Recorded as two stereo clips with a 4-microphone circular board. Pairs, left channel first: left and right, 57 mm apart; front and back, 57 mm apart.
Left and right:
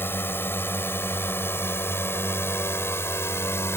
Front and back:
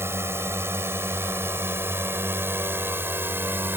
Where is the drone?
140° left; by 3.8 s 130° left.